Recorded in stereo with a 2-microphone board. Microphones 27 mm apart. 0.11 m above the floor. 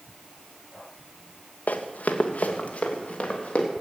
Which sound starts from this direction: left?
Running footsteps, at 1.7 s.